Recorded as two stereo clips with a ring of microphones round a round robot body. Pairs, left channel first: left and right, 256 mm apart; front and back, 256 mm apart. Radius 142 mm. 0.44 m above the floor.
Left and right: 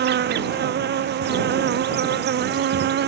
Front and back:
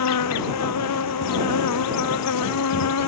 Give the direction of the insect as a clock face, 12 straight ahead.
1 o'clock.